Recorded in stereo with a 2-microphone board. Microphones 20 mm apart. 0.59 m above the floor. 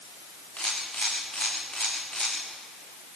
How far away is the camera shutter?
About 9.5 m.